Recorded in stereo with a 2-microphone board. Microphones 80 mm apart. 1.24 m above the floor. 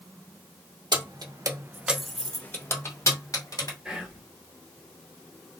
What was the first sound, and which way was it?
Keys jangling, 70° right (ahead or behind).